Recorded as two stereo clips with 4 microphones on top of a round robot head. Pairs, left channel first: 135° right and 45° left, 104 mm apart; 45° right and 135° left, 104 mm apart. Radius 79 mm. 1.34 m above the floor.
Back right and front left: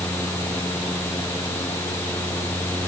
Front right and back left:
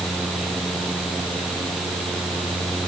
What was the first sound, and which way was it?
Only background noise.